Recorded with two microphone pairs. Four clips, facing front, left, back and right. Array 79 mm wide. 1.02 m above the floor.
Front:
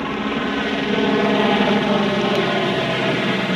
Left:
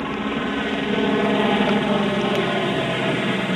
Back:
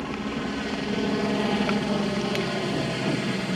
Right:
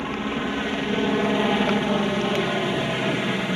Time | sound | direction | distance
0.0 | a helicopter | 20° left | ?